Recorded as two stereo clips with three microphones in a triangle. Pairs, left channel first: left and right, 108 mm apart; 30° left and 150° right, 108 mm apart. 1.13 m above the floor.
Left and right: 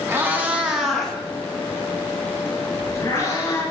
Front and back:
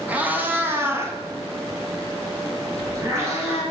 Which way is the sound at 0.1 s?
95° right.